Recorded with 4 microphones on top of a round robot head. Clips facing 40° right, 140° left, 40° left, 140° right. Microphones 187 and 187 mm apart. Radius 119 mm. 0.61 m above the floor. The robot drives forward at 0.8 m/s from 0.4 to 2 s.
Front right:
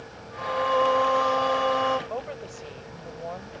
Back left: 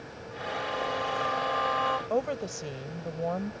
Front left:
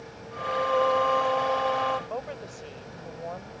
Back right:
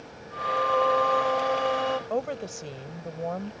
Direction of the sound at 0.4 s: 45° right.